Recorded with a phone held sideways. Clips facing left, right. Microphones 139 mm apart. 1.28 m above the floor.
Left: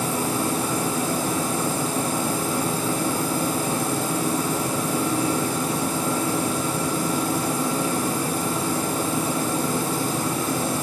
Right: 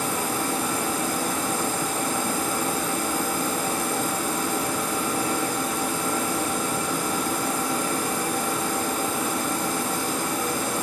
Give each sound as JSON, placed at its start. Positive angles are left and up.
{"t": 0.0, "sound": "a machine running", "side_deg": 30, "distance_m": 8.5}